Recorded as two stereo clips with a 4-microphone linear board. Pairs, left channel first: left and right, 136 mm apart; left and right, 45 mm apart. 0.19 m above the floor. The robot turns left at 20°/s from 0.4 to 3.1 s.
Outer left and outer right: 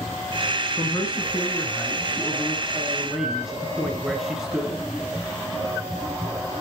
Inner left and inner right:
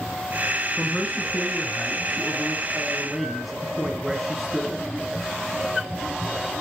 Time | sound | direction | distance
0.8 | a man speaking | 40° left | 2 m